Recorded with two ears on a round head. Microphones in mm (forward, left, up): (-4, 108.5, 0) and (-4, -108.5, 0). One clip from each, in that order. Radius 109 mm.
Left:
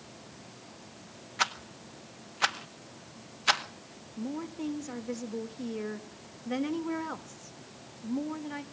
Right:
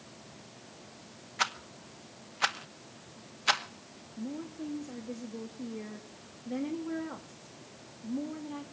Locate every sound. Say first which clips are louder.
1.4 s a rattle: left 2 dB; centre (ahead or behind), 0.8 m
4.2 s a woman speaking: left 3 dB; 45° left (ahead or behind), 2 m